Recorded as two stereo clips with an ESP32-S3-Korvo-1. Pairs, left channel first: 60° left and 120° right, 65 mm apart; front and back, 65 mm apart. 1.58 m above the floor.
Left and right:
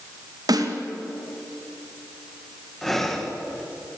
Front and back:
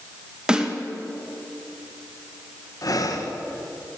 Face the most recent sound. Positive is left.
turn(degrees=-25)